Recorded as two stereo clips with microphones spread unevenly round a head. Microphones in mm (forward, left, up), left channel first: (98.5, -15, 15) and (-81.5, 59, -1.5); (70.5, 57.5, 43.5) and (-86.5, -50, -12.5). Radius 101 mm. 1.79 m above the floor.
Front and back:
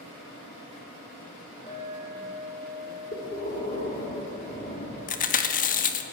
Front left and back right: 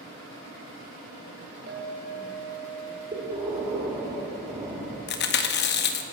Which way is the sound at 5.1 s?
20° left.